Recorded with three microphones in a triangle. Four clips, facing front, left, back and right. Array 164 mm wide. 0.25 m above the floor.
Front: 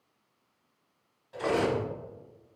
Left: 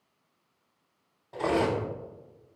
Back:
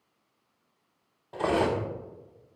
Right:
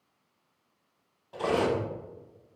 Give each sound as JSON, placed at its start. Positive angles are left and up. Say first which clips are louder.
{"t": 1.3, "sound": "cutlery clinking", "louder": "even, back 2 dB", "azimuth_deg": 170, "distance_m": 0.7}